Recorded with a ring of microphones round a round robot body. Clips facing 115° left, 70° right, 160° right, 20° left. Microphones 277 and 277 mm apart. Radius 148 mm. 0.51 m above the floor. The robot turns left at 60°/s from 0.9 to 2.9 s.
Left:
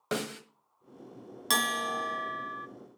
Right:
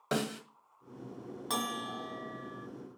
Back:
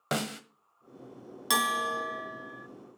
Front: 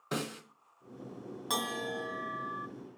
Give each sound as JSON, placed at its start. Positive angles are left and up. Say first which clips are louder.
{"t": 0.1, "sound": "a snare drum", "louder": "even, back 3 dB", "azimuth_deg": -160, "distance_m": 1.5}
{"t": 1.5, "sound": "a bell", "louder": "left 4 dB, back 2 dB", "azimuth_deg": 155, "distance_m": 0.7}